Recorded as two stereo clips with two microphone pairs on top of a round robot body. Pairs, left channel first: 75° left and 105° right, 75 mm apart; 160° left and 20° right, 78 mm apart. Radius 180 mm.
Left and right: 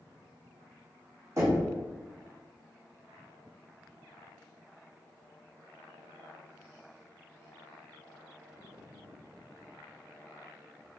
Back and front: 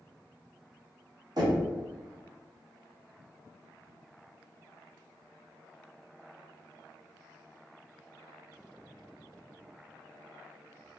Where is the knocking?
55° right, 1.8 m.